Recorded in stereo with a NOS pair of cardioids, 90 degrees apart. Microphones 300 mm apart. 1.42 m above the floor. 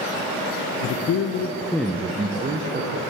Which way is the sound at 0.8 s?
70° left.